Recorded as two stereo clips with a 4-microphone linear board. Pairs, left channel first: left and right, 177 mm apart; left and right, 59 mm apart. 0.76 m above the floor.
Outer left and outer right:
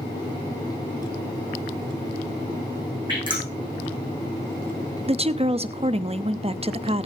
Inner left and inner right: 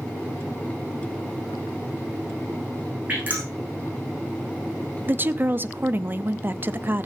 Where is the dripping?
25° right (ahead or behind), 7 m.